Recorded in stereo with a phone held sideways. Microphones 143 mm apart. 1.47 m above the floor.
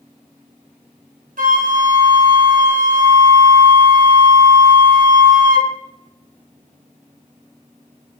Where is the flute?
75° right (ahead or behind), 0.5 m.